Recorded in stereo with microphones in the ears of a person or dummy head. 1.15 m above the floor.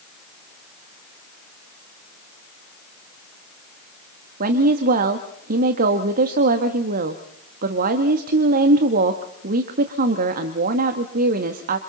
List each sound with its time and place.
4.4 s a woman speaking: 50° right (ahead or behind), 1.4 m